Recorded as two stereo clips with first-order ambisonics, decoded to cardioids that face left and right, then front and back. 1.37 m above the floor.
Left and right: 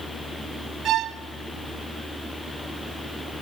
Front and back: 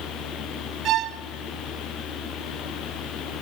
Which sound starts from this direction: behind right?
A violin, at 0.8 s.